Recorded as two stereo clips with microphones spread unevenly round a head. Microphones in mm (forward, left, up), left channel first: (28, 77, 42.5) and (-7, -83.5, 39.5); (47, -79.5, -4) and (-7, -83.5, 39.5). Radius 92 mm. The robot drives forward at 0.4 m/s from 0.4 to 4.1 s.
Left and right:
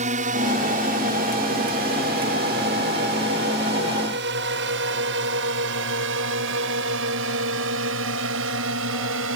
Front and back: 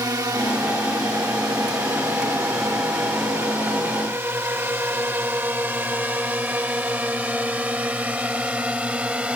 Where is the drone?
155° right; by 9.4 s 110° right.